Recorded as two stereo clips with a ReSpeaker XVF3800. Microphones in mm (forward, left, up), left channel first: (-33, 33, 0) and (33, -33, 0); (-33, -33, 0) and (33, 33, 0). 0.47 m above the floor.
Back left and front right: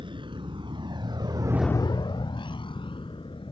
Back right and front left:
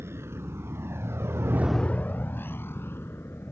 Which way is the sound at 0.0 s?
20° right.